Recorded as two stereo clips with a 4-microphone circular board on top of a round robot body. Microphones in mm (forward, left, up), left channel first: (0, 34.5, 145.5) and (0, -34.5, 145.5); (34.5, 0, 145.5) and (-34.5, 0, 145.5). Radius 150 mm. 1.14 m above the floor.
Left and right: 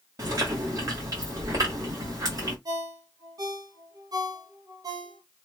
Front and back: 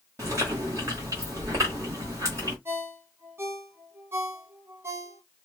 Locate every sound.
0.2 s chewing: 135° right, 1.2 m
2.6 s a ringtone: 125° right, 1.0 m